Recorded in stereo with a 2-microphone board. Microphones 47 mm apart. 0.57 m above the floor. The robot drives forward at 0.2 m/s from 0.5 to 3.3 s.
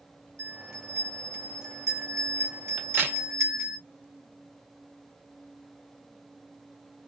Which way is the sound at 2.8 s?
45° right (ahead or behind).